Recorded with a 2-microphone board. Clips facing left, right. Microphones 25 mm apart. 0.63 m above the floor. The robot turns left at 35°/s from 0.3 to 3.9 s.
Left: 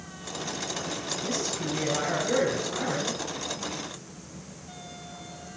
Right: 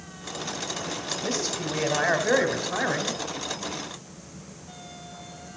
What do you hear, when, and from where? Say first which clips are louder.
1.2 s a man speaking: right 2 dB; 70° right, 2 m; by 3.2 s 140° right, 2 m